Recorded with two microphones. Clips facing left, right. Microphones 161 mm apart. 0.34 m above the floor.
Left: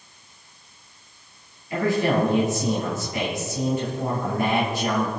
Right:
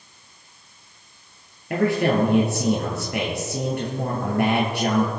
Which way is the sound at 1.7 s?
65° right (ahead or behind).